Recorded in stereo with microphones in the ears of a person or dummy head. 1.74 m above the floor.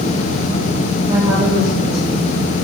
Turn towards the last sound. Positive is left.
turn(degrees=-25)  # may be behind; listen again after turning